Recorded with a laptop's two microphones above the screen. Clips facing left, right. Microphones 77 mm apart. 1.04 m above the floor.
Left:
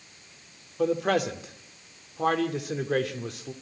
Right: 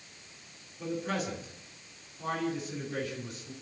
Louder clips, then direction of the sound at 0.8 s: Left 9 dB; 85° left.